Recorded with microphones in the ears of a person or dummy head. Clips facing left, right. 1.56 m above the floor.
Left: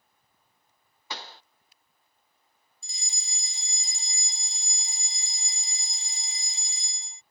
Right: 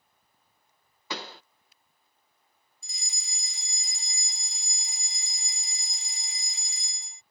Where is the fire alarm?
25° left (ahead or behind).